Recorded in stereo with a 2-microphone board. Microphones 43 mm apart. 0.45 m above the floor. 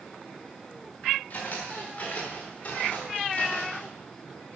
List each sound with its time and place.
1.3 s footsteps: 50° left (ahead or behind), 4.5 m; by 3.9 s 45° left (ahead or behind), 3 m